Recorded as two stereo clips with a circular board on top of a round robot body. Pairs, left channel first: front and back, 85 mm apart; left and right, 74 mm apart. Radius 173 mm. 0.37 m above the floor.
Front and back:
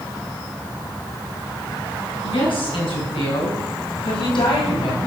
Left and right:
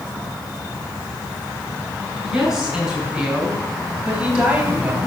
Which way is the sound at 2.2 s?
10° right.